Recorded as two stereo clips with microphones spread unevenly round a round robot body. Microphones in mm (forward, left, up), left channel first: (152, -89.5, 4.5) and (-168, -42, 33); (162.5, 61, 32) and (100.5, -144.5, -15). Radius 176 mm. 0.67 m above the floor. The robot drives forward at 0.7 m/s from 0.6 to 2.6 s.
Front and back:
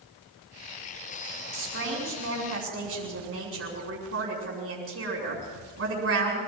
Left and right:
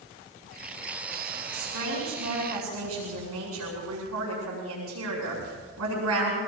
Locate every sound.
1.5 s a woman speaking: 135° right, 7.5 m; by 6.4 s 140° right, 8 m